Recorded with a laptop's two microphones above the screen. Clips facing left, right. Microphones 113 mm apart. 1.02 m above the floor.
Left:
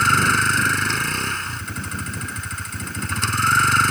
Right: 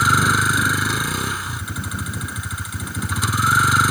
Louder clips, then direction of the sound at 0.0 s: Right 1 dB; 10° right (ahead or behind).